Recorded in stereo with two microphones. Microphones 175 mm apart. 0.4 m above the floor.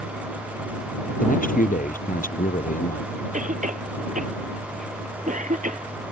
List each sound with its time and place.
1.2 s a man speaking: 50° left (ahead or behind)
3.3 s a cough: 45° right (ahead or behind)